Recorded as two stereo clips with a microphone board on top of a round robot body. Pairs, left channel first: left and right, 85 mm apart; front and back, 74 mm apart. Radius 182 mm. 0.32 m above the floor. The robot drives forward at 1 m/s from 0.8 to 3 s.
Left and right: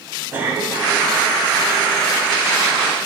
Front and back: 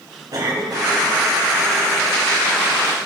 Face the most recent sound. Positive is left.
turn(degrees=-165)